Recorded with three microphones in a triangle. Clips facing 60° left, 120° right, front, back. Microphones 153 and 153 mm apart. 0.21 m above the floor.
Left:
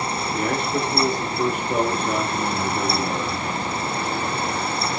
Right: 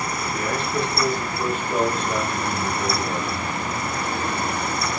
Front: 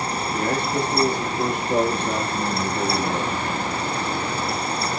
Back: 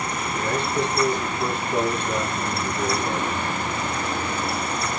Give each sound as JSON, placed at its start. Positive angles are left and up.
{"t": 0.3, "sound": "a man speaking", "azimuth_deg": 10, "distance_m": 4.0}